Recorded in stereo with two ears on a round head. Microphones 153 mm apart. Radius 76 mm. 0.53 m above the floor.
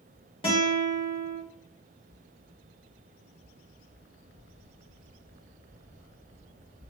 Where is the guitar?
35° left (ahead or behind), 1.9 m.